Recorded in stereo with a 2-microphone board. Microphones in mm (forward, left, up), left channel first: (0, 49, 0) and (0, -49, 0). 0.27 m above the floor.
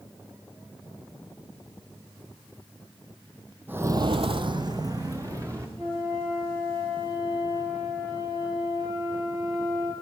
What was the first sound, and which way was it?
Footsteps, 20° right (ahead or behind).